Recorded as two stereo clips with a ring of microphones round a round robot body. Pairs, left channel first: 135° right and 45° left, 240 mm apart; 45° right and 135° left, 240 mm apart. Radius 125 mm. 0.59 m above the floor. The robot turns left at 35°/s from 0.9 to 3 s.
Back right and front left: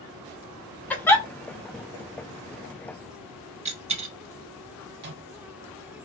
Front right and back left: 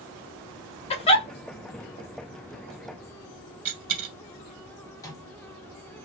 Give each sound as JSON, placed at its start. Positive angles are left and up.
{"t": 0.9, "sound": "a giggle", "azimuth_deg": -60, "distance_m": 0.7}
{"t": 3.6, "sound": "a dropped coin", "azimuth_deg": 105, "distance_m": 0.8}
{"t": 5.0, "sound": "a microwave", "azimuth_deg": 25, "distance_m": 1.0}